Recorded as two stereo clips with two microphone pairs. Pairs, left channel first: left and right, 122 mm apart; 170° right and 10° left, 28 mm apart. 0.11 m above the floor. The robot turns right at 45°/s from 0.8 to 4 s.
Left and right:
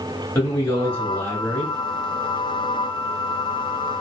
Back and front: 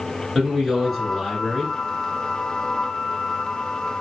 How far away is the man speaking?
About 1.3 m.